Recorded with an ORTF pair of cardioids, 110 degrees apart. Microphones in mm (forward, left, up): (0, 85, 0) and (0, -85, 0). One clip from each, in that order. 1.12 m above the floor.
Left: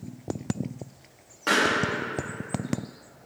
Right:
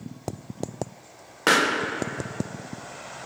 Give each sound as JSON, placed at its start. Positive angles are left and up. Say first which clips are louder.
{"t": 1.5, "sound": "a pop", "louder": "right 2 dB", "azimuth_deg": -55, "distance_m": 0.9}